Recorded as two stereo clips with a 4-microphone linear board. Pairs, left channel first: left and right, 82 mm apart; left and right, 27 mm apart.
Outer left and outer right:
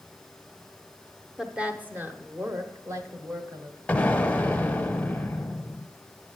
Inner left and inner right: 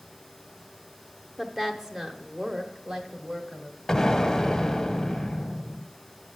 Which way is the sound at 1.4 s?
10° right (ahead or behind).